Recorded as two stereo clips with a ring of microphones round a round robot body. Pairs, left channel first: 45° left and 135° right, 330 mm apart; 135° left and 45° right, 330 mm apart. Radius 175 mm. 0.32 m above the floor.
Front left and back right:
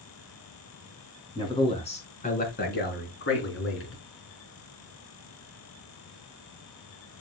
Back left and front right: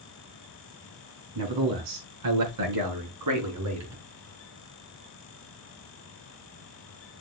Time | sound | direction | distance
1.4 | a man speaking | 35° right | 4.5 m